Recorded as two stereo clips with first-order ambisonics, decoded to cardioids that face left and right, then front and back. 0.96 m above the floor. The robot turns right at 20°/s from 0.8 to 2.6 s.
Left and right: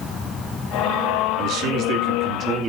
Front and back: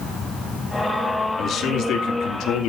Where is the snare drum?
I don't hear a snare drum.